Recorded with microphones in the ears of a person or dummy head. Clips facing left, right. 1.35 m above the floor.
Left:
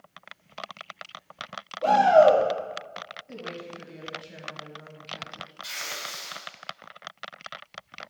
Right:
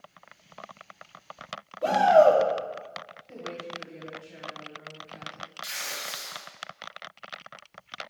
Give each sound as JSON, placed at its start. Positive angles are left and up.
{"t": 1.8, "sound": "a shout", "side_deg": 0, "distance_m": 2.5}
{"t": 3.3, "sound": "a woman speaking", "side_deg": 55, "distance_m": 2.0}
{"t": 5.6, "sound": "tearing paper", "side_deg": -15, "distance_m": 3.0}